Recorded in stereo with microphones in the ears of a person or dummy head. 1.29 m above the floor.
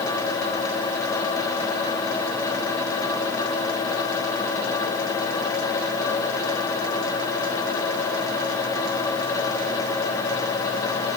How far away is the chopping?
I don't hear chopping.